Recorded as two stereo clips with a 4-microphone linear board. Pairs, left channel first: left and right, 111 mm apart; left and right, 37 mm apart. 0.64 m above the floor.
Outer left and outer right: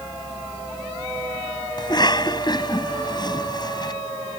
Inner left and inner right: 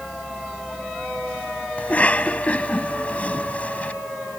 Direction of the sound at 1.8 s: 40° left (ahead or behind).